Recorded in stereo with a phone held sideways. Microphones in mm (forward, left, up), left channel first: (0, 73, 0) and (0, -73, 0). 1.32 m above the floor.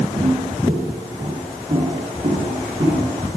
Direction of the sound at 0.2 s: 65° right (ahead or behind).